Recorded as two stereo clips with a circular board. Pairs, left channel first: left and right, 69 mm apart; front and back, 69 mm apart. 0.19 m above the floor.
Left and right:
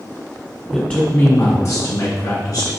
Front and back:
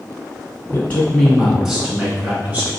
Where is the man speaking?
20° left, 1.1 m; by 2.7 s 120° left, 2.5 m.